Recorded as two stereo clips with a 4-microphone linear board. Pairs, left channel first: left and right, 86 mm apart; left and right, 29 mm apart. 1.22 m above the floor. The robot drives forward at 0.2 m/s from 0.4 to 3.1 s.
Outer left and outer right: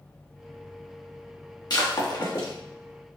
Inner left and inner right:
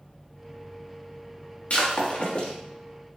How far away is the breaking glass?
About 1.1 m.